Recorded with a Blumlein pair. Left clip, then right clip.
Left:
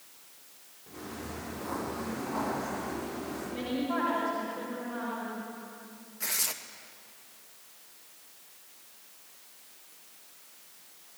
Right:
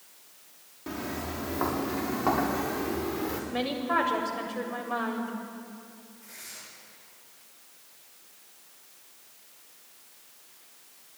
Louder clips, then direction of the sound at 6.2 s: Left 14 dB; 50° left.